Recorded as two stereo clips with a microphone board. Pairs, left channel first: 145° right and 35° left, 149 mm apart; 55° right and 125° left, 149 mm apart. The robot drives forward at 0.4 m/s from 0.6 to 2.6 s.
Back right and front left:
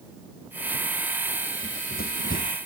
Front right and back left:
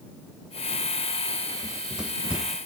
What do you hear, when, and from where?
1.6 s running footsteps: 150° right